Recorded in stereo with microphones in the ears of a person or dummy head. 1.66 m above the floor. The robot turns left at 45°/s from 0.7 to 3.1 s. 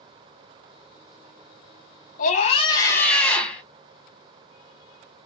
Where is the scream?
50° left, 1.9 m; by 3.6 s 10° left, 1.9 m.